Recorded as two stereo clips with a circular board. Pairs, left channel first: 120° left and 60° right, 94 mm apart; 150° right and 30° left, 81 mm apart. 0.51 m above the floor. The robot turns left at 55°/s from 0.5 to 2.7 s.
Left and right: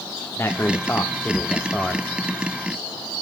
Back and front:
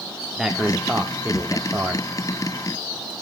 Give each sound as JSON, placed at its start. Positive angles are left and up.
{"t": 0.4, "sound": "a man speaking", "azimuth_deg": 105, "distance_m": 0.7}